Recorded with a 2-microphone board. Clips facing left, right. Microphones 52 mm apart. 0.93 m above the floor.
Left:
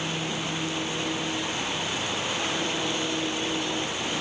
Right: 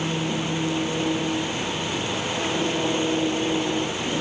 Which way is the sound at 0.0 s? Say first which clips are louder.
Right 4 dB; 25° right (ahead or behind).